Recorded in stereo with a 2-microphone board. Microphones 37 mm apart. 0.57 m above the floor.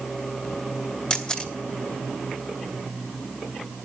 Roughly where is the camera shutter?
Left.